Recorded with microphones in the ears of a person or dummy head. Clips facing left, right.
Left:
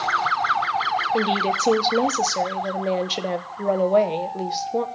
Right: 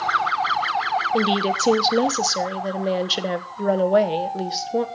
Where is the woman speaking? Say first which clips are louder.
Right 2 dB; 10° right (ahead or behind), 1.0 m.